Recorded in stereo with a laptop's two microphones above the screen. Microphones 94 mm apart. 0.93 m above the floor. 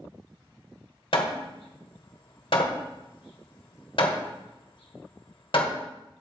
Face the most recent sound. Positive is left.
turn(degrees=70)  # may be behind; listen again after turning